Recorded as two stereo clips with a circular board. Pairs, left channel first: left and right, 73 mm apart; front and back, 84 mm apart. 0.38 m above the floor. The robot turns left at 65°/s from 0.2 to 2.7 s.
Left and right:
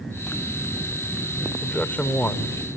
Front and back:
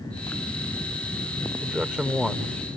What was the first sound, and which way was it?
A man speaking, 140° left.